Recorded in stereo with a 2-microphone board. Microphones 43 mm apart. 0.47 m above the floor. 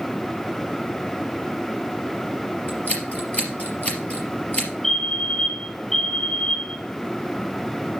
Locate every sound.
2.7 s scissors: 45° left (ahead or behind), 3.5 m
4.8 s a fire alarm: 15° left (ahead or behind), 5.5 m